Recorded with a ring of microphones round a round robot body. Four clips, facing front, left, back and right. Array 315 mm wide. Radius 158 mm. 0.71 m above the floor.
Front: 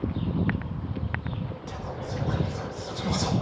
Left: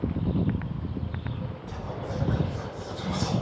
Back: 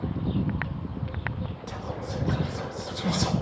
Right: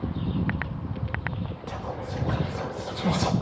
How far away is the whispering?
About 0.7 m.